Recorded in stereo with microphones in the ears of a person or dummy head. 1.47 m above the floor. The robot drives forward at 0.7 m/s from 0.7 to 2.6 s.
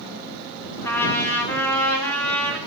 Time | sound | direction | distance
0.8 | a trumpet | 20° left (ahead or behind) | 2 m